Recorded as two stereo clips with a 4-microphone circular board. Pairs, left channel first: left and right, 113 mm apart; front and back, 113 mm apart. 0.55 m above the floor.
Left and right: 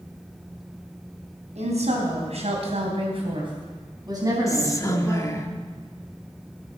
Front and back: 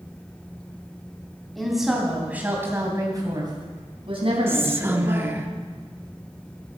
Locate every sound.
1.6 s a woman speaking: 90° right, 4 m; by 5.5 s 165° right, 5 m
4.5 s whispering: 125° left, 0.8 m